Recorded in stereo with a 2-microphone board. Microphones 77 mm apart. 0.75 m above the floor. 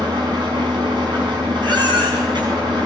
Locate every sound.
0.0 s an engine running: 85° right, 7.5 m
1.6 s a baby crying: 75° right (ahead or behind), 5.5 m